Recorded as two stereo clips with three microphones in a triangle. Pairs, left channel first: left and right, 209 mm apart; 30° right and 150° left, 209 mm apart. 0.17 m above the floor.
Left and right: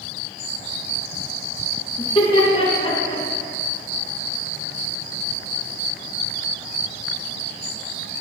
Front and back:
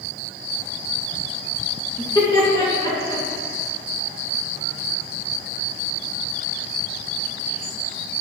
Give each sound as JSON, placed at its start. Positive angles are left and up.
{"t": 2.0, "sound": "laughter", "azimuth_deg": 30, "distance_m": 1.8}